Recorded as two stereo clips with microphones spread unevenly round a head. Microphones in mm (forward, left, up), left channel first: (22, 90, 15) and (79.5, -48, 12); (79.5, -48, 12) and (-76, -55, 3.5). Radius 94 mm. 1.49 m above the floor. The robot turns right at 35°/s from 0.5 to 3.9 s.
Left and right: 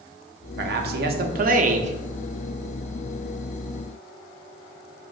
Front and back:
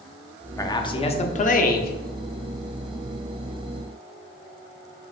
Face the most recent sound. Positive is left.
turn(degrees=45)